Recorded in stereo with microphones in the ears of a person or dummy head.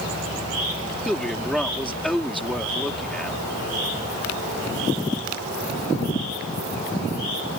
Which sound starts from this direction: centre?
A man speaking, at 1.1 s.